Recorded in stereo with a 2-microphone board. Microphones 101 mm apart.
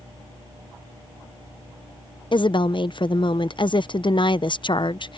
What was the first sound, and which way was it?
A woman speaking, 55° left (ahead or behind).